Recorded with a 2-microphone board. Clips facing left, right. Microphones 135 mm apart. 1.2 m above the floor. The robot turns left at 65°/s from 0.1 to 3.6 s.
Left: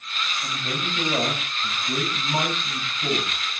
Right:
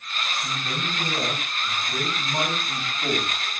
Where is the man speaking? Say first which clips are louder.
Even; 155° left, 9 m; by 3.5 s 45° right, 9 m.